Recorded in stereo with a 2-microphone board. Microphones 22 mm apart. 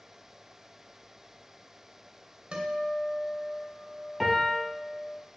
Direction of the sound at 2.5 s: 45° right (ahead or behind).